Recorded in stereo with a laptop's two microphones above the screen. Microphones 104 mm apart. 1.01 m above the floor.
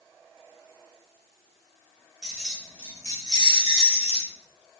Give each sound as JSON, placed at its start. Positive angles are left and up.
{"t": 2.2, "sound": "keys jangling", "side_deg": -5, "distance_m": 0.8}